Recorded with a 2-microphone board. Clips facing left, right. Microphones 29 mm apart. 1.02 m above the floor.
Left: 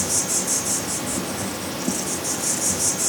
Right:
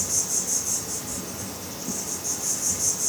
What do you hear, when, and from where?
0.0 s an insect: 70° left (ahead or behind), 0.8 m